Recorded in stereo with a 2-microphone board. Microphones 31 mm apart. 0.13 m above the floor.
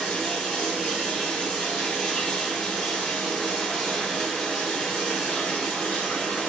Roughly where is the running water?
Left.